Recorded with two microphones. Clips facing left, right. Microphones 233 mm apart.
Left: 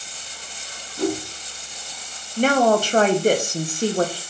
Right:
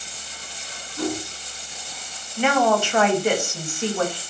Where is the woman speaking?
40° left (ahead or behind), 0.8 m.